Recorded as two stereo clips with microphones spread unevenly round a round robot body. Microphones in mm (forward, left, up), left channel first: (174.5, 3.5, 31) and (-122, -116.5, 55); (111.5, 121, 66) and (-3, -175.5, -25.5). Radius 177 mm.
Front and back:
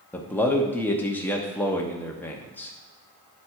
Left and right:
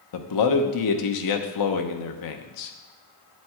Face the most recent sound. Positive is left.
turn(degrees=105)